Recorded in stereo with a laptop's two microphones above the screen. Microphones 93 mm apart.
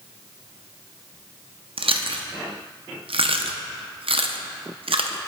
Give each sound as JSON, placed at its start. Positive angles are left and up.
{"t": 1.8, "sound": "chewing", "side_deg": -80, "distance_m": 0.5}